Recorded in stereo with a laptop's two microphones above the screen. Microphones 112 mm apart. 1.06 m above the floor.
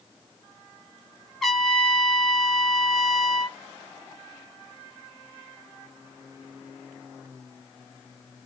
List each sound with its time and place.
1.4 s a trumpet: centre (ahead or behind), 0.9 m